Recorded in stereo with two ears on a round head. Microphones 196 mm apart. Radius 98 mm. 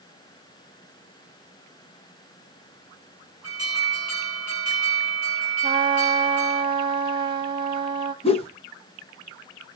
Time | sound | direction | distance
3.4 | an alarm | 70° left (ahead or behind) | 7.5 m
5.6 | a trumpet | 25° right (ahead or behind) | 1.1 m
8.2 | a whoosh | 25° left (ahead or behind) | 0.8 m